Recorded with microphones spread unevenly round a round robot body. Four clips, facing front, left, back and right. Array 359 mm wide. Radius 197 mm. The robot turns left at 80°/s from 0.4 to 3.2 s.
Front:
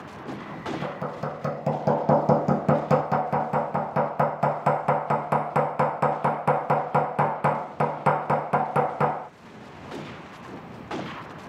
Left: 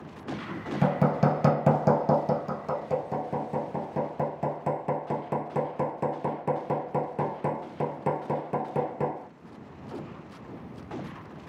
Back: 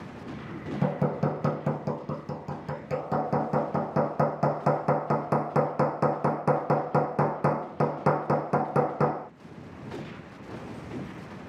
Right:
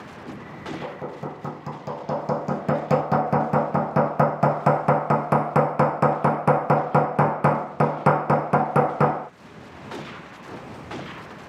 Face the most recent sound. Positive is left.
turn(degrees=-70)